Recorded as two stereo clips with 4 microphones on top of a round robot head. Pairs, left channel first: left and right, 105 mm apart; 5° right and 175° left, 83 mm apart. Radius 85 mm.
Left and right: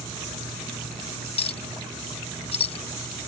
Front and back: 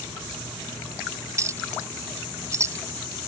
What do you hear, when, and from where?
1.4 s a clink: 120° left